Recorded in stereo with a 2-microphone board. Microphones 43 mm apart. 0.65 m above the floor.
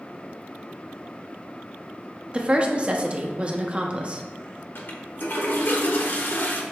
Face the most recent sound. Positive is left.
turn(degrees=55)  # may be behind; listen again after turning